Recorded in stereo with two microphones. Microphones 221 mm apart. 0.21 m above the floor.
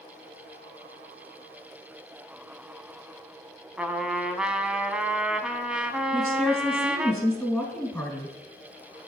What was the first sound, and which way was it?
A trumpet, 5° right (ahead or behind).